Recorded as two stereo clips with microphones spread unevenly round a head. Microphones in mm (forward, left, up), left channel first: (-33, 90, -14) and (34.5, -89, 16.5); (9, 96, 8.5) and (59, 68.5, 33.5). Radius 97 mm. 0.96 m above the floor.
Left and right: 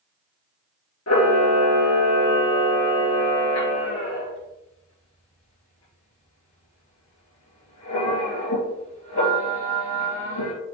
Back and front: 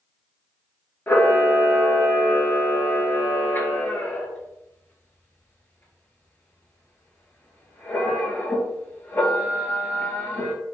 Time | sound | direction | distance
1.1 | a camera shutter | 95° left | 3.5 m